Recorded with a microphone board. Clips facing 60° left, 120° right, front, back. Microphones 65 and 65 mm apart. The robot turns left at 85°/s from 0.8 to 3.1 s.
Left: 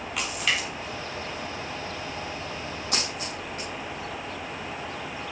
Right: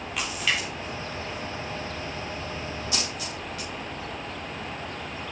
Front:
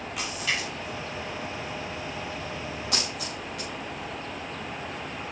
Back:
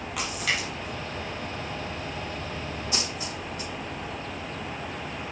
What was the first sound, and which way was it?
A splash, 150° left.